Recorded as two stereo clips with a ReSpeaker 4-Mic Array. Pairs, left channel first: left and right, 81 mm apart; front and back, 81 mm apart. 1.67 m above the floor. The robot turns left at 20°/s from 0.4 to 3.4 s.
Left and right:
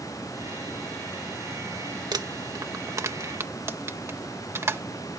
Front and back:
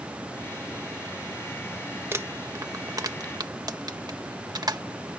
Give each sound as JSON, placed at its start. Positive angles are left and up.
{"t": 2.1, "sound": "crumpling", "azimuth_deg": -120}